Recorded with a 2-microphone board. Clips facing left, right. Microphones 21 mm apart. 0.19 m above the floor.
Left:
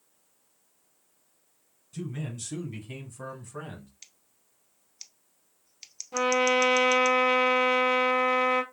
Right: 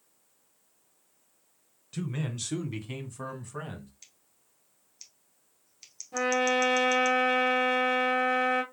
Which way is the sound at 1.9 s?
50° right (ahead or behind).